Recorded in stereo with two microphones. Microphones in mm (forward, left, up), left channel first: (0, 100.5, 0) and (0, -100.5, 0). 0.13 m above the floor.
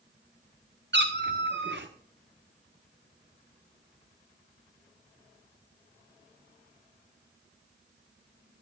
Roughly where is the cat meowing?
Right.